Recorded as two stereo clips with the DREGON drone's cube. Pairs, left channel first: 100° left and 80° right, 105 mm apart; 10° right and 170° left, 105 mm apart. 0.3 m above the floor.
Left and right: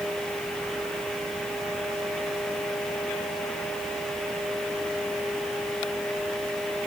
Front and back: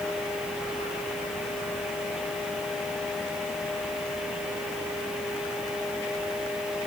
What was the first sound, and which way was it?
Only background noise.